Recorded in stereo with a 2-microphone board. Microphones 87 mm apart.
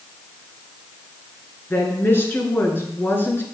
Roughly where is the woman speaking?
Left.